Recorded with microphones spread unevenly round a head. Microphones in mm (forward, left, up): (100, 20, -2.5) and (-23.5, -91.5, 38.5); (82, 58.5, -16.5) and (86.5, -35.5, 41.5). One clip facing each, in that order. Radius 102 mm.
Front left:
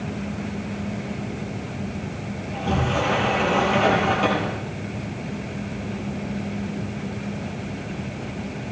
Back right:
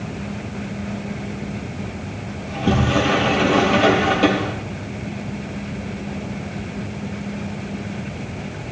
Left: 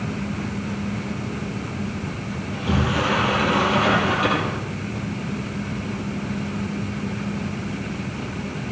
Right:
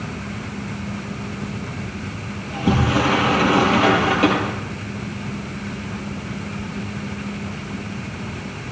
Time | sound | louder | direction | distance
2.4 | a sliding door | back right 5 dB, right 4 dB | 100° right | 4.5 m